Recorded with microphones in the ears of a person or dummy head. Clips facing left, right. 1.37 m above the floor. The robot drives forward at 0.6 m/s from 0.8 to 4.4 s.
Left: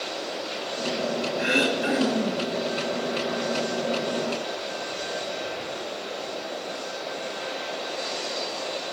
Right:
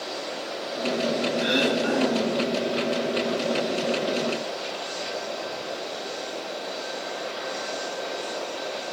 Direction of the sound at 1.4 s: 25° left (ahead or behind).